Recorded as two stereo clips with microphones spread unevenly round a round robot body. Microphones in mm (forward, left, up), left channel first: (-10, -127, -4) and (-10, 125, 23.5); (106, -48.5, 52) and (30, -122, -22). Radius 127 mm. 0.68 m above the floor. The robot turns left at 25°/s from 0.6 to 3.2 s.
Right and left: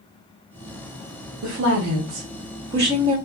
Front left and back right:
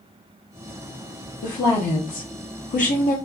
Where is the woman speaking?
70° left, 1.2 m; by 3.2 s 25° left, 1.2 m.